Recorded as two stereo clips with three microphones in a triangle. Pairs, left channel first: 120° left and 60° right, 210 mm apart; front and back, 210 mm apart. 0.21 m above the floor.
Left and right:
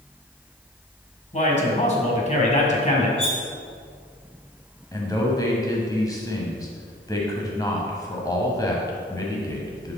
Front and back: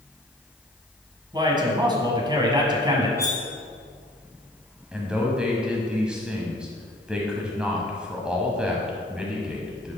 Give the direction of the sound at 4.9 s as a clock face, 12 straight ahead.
9 o'clock.